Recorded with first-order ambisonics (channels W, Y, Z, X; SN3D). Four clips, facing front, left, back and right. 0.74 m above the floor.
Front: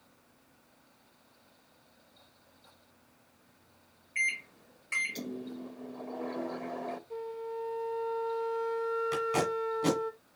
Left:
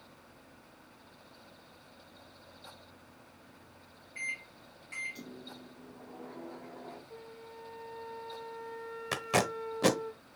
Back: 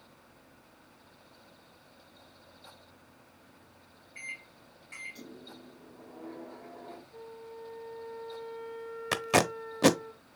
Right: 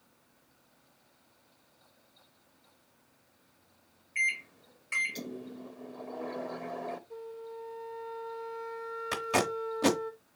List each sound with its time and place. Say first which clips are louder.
4.2 s a microwave: right 8 dB, front 11 dB; 45° right, 0.5 m
7.1 s a flute: right 6 dB, front 8 dB; 5° right, 0.7 m
9.1 s tape being pulled: right 1 dB, back 3 dB; 170° left, 0.8 m